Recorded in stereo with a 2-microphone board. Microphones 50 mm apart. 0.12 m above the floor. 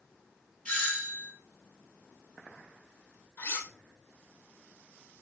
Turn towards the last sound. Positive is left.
turn(degrees=45)  # may be behind; listen again after turning